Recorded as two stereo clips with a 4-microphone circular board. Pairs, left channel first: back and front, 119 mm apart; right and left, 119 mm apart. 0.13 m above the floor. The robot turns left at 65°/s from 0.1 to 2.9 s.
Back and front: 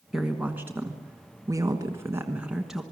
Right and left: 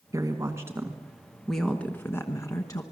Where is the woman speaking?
85° left, 1.3 m; by 2.8 s 90° right, 1.3 m.